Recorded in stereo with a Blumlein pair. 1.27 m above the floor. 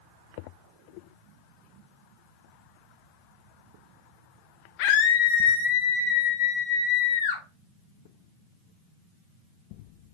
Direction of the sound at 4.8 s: 40° left.